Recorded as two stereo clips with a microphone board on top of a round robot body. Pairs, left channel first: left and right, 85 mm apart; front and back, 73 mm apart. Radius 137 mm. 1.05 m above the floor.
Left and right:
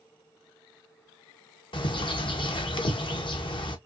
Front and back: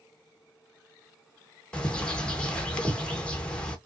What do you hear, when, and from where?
1.7 s a bird: 75° left, 1.1 m